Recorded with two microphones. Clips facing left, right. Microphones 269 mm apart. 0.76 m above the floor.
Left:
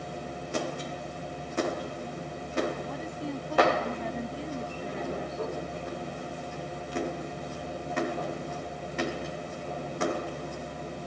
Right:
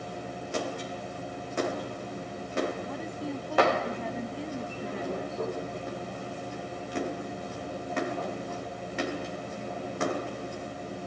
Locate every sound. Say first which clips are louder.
2.9 s a woman speaking: even; centre (ahead or behind)